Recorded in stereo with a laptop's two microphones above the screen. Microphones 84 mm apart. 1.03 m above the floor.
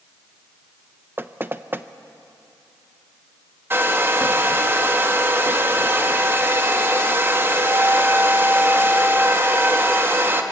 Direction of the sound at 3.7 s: 30° right (ahead or behind).